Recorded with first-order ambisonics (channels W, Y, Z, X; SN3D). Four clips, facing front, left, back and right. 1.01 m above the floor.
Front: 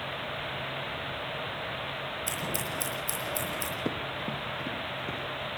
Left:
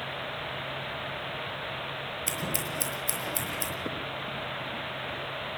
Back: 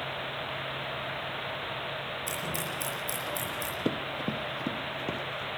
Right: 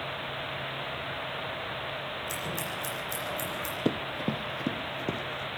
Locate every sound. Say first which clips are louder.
2.3 s scissors: left 1 dB, front 1 dB; 75° left, 6.5 m
3.9 s running footsteps: right 4 dB, back 1 dB; 110° right, 1.2 m